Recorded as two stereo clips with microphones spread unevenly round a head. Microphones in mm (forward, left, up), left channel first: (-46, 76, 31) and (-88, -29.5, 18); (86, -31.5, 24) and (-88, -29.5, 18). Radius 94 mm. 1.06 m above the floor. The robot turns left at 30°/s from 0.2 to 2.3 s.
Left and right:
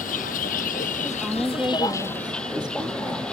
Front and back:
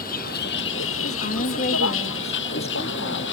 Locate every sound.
0.0 s a vehicle: 45° left; by 3.3 s 15° right
1.0 s a woman speaking: 20° right; by 3.2 s 55° right